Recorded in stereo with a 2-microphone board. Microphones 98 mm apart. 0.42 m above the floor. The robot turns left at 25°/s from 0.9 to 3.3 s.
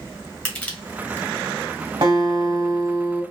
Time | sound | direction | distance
0.5 | crushing | 15° left (ahead or behind) | 1.6 m
2.0 | a guitar | 120° right | 1.5 m